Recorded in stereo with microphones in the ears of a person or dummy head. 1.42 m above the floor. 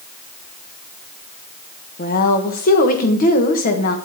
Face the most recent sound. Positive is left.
turn(degrees=40)  # may be behind; listen again after turning